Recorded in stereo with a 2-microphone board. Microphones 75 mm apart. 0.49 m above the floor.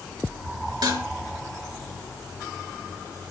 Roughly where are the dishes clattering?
Right.